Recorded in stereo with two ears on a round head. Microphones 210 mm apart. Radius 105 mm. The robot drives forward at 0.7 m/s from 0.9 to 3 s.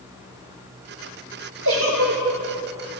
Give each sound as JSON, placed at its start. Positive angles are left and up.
{"t": 1.6, "sound": "a giggle", "side_deg": -65, "distance_m": 3.5}